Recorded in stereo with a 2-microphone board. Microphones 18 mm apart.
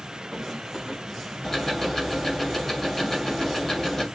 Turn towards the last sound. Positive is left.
turn(degrees=15)  # may be behind; listen again after turning